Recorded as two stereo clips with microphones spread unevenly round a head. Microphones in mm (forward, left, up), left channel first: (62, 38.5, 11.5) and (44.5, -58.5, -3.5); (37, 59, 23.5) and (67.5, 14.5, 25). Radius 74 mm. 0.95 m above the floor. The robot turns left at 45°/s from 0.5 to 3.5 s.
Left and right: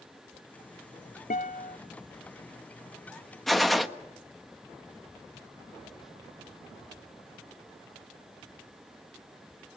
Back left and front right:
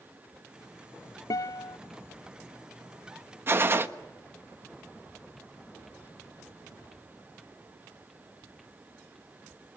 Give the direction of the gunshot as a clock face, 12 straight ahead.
12 o'clock.